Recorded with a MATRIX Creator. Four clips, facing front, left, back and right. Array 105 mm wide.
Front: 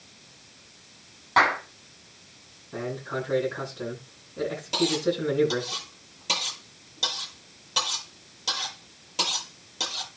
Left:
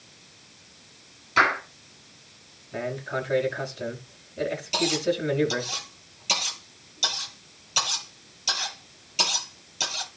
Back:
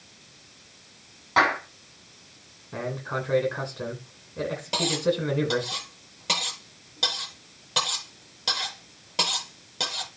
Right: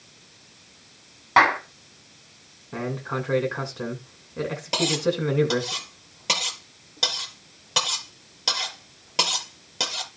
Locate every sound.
1.4 s a clap: 90° right, 7 m
2.7 s a man speaking: 115° right, 8.5 m
4.7 s cutlery clinking: 110° right, 9.5 m